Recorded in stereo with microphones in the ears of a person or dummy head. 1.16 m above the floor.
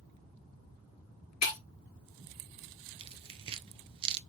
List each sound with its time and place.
1.4 s breaking glass: 80° left, 1.6 m
3.0 s tearing paper: 30° right (ahead or behind), 0.7 m